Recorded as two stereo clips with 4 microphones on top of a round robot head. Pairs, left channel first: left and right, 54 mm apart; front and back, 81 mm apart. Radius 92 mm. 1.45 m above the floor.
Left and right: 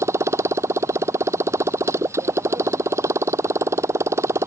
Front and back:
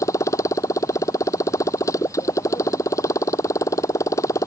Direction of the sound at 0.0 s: 55° right.